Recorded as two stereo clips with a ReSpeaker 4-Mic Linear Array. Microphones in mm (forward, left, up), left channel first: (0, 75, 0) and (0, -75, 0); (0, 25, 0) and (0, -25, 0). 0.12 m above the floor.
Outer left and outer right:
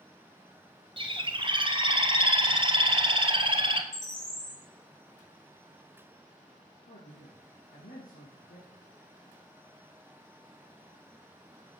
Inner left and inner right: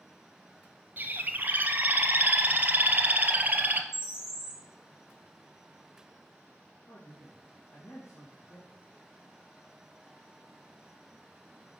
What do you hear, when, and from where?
1.0 s a bird: 35° right (ahead or behind), 0.7 m
3.9 s a bird: 55° left (ahead or behind), 3 m
6.9 s a man speaking: 70° left (ahead or behind), 3.5 m